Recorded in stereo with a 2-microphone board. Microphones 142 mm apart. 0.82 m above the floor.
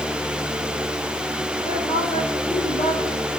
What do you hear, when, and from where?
1.6 s a woman speaking: 50° left (ahead or behind), 4 m